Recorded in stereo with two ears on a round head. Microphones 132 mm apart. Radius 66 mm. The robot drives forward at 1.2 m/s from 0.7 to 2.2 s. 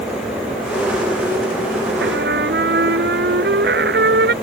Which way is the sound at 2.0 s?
85° right.